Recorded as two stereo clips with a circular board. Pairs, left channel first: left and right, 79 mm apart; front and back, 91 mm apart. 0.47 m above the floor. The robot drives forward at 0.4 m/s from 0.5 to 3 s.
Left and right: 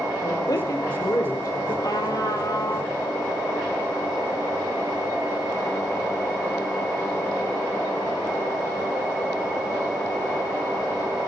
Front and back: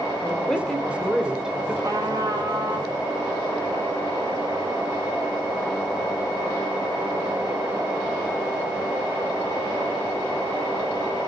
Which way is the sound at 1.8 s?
125° left.